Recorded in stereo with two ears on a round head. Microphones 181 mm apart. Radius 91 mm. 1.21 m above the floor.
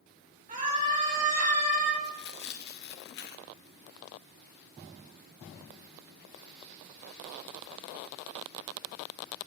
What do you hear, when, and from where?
0.5 s a scream: 35° right (ahead or behind), 5 m; by 1.9 s 40° right (ahead or behind), 3 m
2.0 s tearing paper: 50° left (ahead or behind), 1.0 m